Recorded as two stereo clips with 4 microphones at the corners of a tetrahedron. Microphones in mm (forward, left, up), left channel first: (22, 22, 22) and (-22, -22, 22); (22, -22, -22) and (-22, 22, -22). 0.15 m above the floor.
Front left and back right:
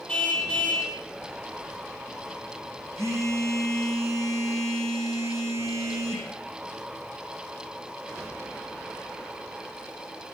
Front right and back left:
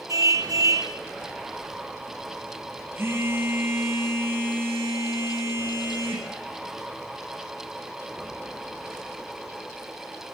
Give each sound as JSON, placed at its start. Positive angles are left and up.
{"t": 0.1, "sound": "a car horn", "azimuth_deg": 120, "distance_m": 3.5}
{"t": 3.0, "sound": "a phone buzzing", "azimuth_deg": -175, "distance_m": 6.0}